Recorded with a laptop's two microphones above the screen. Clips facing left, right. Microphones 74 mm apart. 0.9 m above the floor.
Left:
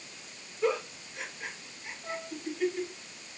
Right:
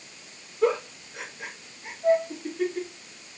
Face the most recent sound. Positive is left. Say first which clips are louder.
# right 18 dB
turn(degrees=-70)  # may be behind; listen again after turning